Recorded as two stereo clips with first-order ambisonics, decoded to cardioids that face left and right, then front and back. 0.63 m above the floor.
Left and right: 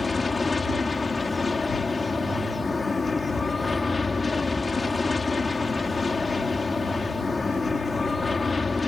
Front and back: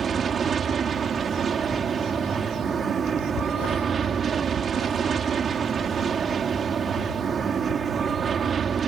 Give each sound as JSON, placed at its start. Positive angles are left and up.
{"t": 0.0, "sound": "an aircraft", "azimuth_deg": 155}